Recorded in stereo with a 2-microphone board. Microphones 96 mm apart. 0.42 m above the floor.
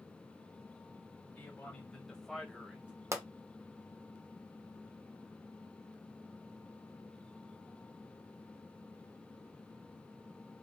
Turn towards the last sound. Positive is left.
turn(degrees=-30)  # may be behind; listen again after turning